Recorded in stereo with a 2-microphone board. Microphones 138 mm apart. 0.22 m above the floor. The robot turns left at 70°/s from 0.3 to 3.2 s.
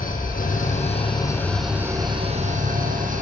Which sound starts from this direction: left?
An engine running, at 0.0 s.